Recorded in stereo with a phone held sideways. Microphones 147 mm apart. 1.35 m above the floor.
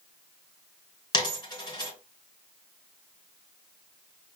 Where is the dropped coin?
30° left (ahead or behind), 2 m.